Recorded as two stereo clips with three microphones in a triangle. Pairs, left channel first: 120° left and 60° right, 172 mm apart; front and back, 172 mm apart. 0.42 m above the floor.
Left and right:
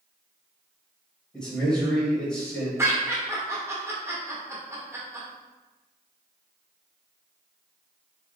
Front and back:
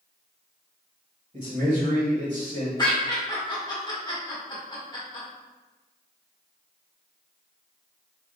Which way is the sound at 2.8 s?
10° right.